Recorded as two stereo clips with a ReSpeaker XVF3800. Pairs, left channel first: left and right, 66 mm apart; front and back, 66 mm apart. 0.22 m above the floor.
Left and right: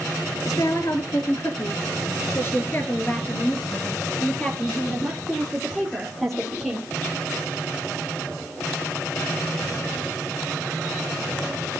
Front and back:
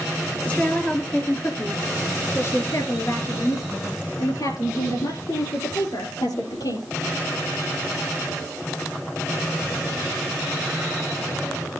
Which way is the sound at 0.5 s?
70° left.